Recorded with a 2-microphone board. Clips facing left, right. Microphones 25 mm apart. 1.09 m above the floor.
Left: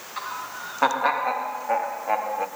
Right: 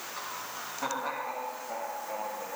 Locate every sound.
0.2 s laughter: 35° left (ahead or behind), 1.7 m; by 2.5 s 80° left, 1.8 m